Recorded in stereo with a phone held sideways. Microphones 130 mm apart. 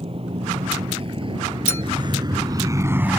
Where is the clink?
20° left (ahead or behind).